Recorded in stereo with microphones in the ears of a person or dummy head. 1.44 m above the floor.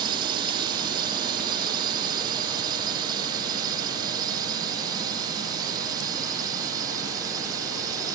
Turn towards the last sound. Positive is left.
turn(degrees=-20)  # may be behind; listen again after turning